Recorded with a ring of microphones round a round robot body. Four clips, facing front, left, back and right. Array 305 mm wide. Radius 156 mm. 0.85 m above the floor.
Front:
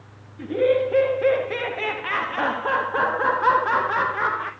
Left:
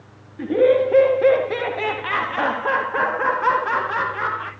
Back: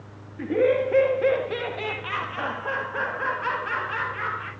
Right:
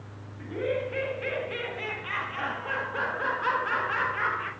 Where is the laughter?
105° left, 2 m; by 4.5 s 15° left, 2 m.